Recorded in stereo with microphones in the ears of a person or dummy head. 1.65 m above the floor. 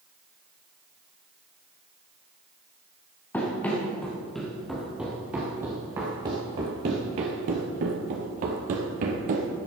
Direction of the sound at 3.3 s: 10° left (ahead or behind).